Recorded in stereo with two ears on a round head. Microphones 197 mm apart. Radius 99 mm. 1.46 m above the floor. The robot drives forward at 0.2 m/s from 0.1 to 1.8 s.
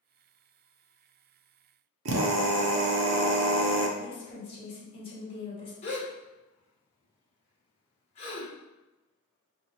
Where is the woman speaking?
25° left (ahead or behind), 1.5 m.